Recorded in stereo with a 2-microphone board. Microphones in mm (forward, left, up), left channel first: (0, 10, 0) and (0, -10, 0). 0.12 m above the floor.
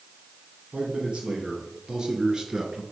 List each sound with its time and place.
0.7 s a man speaking: 50° right (ahead or behind), 2.5 m; by 2.8 s 15° right (ahead or behind), 1.4 m